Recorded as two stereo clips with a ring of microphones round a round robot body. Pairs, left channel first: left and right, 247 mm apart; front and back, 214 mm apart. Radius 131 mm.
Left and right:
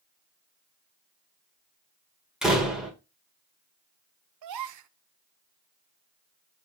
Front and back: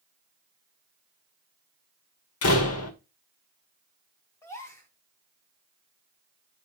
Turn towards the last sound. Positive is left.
turn(degrees=-80)